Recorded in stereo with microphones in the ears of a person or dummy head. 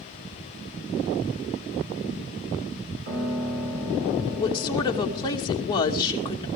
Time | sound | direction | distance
3.1 | a piano | 80° right | 7.5 m
4.4 | a woman speaking | 25° left (ahead or behind) | 2.5 m